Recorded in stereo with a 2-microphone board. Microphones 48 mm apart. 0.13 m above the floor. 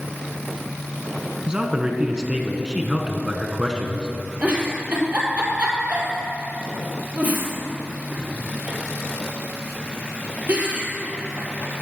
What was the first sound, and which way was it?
A man speaking, 20° right (ahead or behind).